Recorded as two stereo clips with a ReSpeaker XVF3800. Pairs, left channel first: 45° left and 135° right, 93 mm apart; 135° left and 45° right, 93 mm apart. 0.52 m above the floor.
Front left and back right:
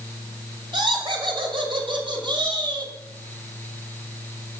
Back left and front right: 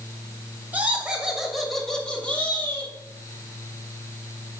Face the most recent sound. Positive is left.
turn(degrees=-160)